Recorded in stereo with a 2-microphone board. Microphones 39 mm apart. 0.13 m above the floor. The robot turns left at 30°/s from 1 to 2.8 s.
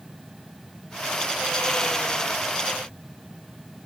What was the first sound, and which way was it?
Only background noise.